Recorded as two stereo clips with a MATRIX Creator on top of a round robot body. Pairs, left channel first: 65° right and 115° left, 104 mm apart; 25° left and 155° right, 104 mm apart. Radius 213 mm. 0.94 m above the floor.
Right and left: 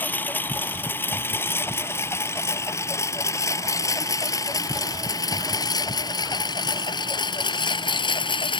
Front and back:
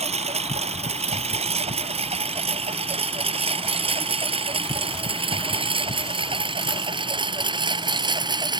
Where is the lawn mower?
140° right; by 8.6 s 110° right.